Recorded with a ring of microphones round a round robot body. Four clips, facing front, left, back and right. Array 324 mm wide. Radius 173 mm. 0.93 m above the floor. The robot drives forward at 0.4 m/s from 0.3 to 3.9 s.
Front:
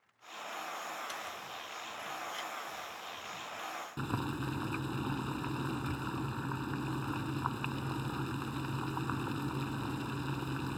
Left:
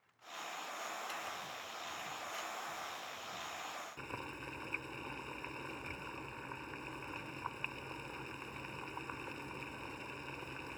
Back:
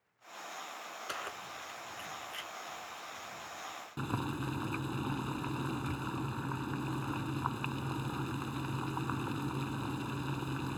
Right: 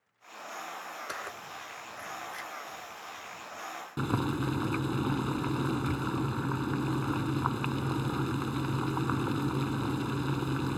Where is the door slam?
I don't hear a door slam.